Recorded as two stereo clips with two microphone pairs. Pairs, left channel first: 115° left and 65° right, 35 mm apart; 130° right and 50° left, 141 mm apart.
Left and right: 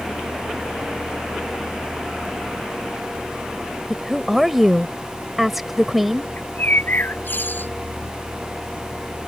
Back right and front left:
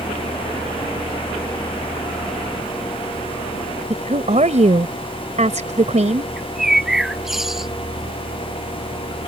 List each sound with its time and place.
3.9 s a woman speaking: 20° left
6.4 s a bird: 140° left